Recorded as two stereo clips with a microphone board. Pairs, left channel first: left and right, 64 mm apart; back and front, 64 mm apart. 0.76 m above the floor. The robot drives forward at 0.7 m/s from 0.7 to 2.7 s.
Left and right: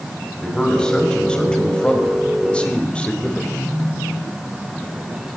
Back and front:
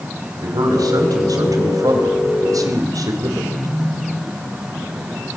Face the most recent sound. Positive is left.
turn(degrees=15)